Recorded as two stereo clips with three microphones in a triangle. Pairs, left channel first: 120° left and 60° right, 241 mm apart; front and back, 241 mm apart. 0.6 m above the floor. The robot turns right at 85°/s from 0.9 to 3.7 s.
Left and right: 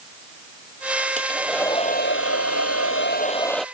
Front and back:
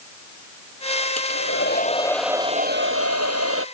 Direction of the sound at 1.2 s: Straight ahead.